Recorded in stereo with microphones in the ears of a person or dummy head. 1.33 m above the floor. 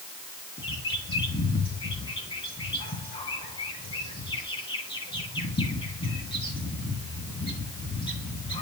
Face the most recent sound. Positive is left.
turn(degrees=30)  # may be behind; listen again after turning